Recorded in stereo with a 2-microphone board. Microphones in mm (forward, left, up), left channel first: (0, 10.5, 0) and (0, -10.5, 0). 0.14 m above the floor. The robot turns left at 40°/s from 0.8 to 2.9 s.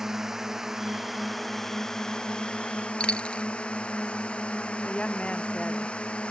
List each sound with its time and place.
0.0 s a drone: 160° right; by 6.3 s 115° left
3.0 s a dropped coin: 60° left (ahead or behind)
4.8 s a woman speaking: 65° left (ahead or behind)